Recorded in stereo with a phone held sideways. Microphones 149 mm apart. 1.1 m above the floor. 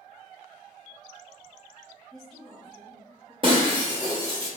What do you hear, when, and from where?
2.1 s a woman speaking: 5° left (ahead or behind), 1.7 m; by 3.3 s 20° right (ahead or behind), 2 m
3.4 s breaking glass: 35° right (ahead or behind), 1.1 m